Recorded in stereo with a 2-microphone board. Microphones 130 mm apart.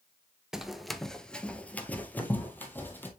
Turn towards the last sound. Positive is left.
turn(degrees=15)  # may be behind; listen again after turning